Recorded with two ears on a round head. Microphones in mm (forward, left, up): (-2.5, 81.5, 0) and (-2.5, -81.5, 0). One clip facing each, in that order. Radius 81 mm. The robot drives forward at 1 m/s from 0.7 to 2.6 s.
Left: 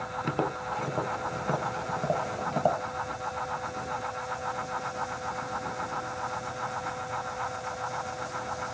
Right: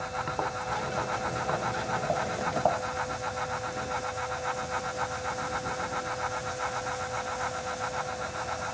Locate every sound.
0.2 s tapping: 40° left (ahead or behind); by 2.8 s 20° left (ahead or behind)